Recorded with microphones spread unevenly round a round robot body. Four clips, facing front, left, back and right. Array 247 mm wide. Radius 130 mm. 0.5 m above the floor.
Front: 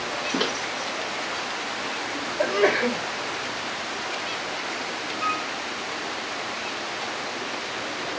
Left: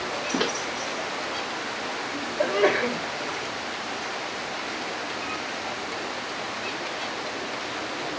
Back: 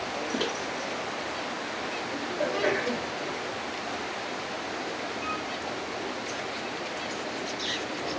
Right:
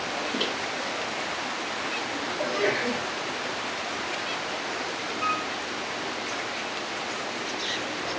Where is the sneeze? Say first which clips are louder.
Left 5 dB, front 6 dB; 30° left, 2 m.